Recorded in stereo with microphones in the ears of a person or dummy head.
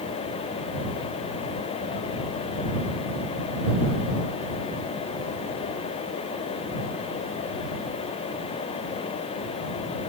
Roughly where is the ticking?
I don't hear ticking.